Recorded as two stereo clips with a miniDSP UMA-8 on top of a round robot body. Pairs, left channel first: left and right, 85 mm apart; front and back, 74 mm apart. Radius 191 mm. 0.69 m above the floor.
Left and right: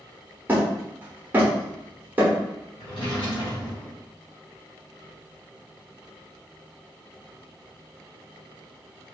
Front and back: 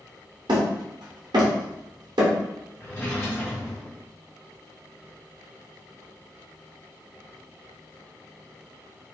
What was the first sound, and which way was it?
Hammering, 160° right.